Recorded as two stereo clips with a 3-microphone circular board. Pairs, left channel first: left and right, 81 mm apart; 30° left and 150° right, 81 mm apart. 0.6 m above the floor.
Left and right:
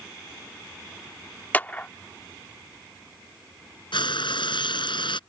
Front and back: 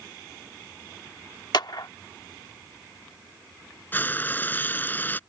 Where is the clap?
25° left.